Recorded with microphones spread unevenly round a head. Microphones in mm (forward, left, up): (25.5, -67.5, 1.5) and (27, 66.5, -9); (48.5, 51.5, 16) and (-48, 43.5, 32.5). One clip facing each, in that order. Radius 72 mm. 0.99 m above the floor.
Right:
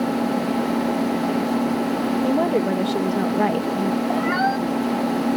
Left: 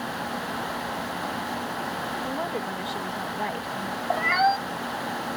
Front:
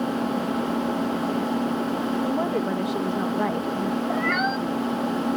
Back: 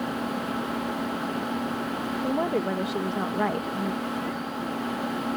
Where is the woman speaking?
80° right.